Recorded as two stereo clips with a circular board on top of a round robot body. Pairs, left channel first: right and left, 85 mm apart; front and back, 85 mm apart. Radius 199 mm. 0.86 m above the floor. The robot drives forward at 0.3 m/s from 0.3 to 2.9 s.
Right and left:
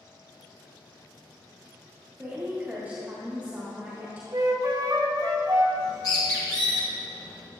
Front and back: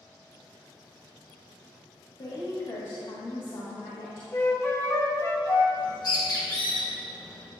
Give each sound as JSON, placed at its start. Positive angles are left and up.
{"t": 2.2, "sound": "a woman speaking", "azimuth_deg": 20, "distance_m": 1.8}
{"t": 4.3, "sound": "a flute", "azimuth_deg": 55, "distance_m": 1.0}
{"t": 5.8, "sound": "a bird", "azimuth_deg": -45, "distance_m": 1.3}